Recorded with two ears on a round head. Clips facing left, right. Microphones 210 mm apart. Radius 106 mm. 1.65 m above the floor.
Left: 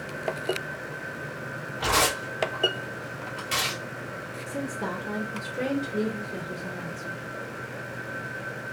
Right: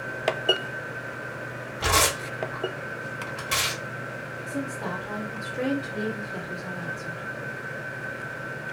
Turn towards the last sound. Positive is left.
turn(degrees=25)  # may be behind; listen again after turning